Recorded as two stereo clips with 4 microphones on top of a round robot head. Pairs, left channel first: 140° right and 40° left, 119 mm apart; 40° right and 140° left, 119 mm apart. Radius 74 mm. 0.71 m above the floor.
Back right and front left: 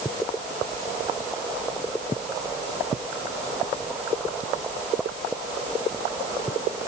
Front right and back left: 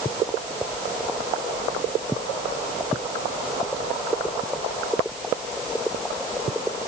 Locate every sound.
Only background noise.